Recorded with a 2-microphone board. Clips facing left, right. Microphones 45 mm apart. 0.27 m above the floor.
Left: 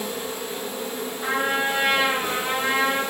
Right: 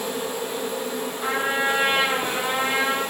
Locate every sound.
0.0 s an insect: 75° right (ahead or behind), 0.8 m
1.2 s a trumpet: 20° right (ahead or behind), 1.6 m